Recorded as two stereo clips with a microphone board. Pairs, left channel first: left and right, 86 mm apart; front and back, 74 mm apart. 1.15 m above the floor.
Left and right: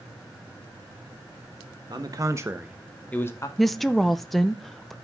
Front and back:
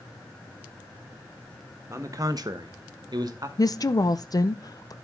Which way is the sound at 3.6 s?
Straight ahead.